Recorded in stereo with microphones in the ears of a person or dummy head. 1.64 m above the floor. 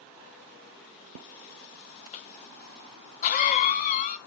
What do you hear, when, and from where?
2.1 s a cough: 40° left (ahead or behind), 1.3 m